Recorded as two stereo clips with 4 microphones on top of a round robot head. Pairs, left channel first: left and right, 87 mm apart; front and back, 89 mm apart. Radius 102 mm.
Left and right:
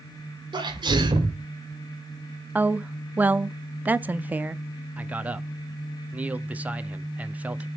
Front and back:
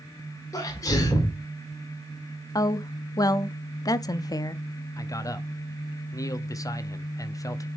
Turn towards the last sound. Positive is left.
turn(degrees=-25)